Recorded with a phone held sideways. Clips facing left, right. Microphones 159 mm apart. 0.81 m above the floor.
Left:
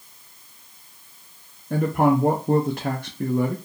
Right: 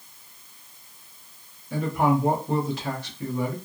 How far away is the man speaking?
About 0.5 m.